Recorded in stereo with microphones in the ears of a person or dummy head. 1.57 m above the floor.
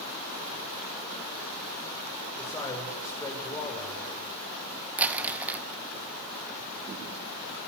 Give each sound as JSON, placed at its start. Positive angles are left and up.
{"t": 2.4, "sound": "a man speaking", "side_deg": 15, "distance_m": 7.5}
{"t": 5.0, "sound": "crumpling", "side_deg": -10, "distance_m": 1.3}